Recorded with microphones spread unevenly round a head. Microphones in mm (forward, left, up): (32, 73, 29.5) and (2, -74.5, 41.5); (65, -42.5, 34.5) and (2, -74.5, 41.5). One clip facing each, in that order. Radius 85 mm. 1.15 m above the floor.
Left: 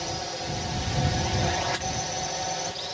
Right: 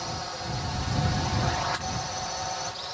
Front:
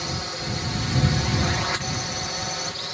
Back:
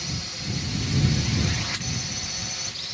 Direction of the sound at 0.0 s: 30° left.